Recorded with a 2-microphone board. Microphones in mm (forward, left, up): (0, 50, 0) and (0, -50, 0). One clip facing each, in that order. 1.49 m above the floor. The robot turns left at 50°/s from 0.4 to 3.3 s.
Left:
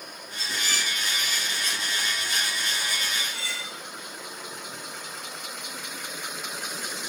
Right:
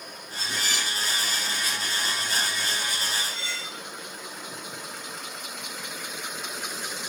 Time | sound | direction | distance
0.4 | dishes clattering | 55° left (ahead or behind) | 3 m
3.1 | cutlery clinking | 80° left | 2.5 m